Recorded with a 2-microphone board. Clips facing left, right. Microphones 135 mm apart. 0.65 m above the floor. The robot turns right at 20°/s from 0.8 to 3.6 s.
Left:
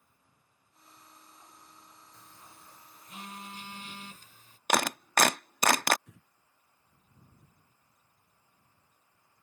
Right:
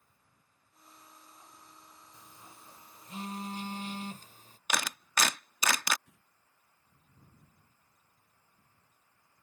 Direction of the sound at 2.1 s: 15° right (ahead or behind).